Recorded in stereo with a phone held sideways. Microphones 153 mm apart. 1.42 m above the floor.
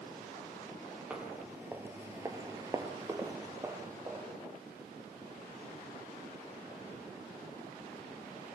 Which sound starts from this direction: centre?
Footsteps, at 1.1 s.